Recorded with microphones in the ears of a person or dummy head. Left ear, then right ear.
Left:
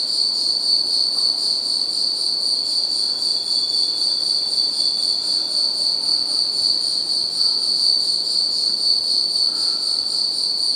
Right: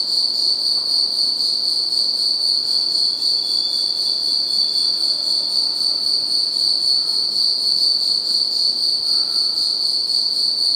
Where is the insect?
5° right (ahead or behind), 1.0 m.